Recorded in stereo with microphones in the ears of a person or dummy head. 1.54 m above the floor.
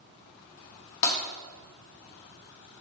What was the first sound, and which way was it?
Breaking glass, 60° left (ahead or behind).